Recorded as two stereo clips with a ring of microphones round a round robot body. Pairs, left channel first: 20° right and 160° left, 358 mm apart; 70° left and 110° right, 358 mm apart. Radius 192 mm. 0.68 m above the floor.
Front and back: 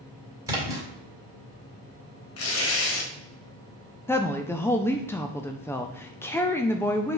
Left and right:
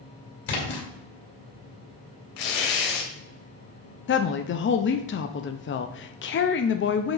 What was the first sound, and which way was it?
A splash, 75° left.